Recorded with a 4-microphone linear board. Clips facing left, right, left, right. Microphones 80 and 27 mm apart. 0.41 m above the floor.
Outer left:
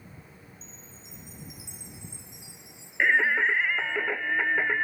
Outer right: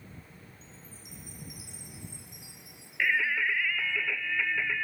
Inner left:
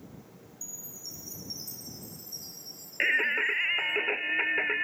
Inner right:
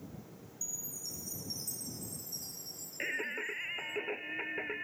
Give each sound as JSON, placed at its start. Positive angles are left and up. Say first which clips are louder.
{"t": 0.6, "sound": "a chime", "louder": "outer left 1 dB, inner right 1 dB", "side_deg": 25}
{"t": 3.0, "sound": "singing", "louder": "outer left 5 dB, inner left 11 dB", "side_deg": 45}